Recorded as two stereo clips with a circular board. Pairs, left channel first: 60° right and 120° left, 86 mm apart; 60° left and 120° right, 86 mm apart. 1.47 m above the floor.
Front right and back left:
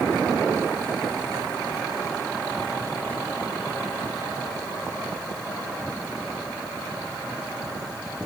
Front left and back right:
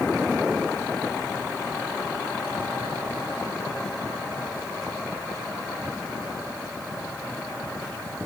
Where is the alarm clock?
No alarm clock in this recording.